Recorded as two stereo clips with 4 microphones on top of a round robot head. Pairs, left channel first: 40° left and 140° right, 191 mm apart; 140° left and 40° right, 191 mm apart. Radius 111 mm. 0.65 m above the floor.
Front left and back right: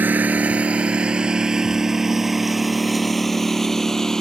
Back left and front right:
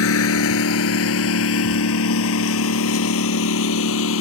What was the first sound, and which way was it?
A lawn mower, 140° left.